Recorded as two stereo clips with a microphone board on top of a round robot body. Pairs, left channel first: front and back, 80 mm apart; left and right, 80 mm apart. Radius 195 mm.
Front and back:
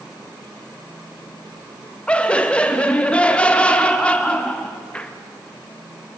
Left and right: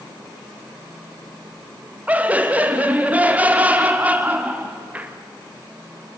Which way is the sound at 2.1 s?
55° right.